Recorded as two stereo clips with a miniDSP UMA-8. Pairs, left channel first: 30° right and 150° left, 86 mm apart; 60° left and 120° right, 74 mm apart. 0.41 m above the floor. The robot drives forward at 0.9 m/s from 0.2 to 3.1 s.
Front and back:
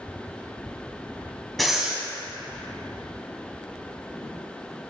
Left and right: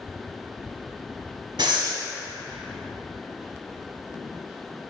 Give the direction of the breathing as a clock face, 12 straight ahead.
4 o'clock.